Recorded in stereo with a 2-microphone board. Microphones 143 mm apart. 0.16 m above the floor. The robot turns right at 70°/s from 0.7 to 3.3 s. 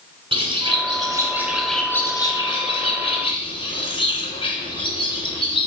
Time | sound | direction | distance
0.3 | a bird | 70° right | 1.7 m